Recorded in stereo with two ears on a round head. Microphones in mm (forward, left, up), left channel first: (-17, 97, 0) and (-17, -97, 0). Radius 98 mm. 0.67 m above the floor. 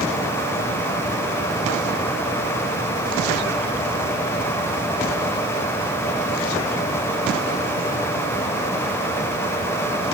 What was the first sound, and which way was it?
Only background noise.